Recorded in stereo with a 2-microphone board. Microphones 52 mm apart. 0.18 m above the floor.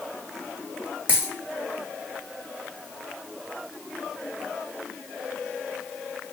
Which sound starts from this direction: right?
A dropped coin, at 1.1 s.